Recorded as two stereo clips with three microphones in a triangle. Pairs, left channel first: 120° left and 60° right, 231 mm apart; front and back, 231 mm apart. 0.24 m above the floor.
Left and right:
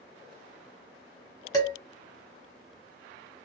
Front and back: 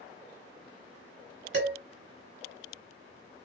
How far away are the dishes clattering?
About 1.2 m.